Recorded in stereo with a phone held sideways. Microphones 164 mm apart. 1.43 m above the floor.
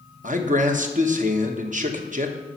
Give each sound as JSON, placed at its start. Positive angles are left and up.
{"t": 0.2, "sound": "a man speaking", "side_deg": -50, "distance_m": 1.0}